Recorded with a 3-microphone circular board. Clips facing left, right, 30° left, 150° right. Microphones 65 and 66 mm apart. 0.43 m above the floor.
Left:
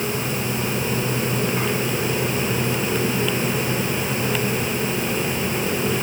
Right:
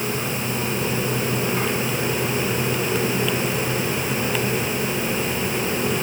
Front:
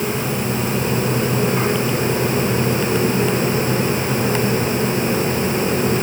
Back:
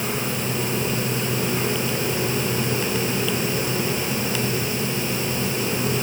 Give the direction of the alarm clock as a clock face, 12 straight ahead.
No alarm clock in this recording.